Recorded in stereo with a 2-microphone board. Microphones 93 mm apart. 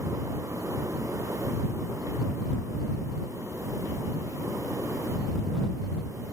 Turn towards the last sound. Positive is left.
No sound to turn to.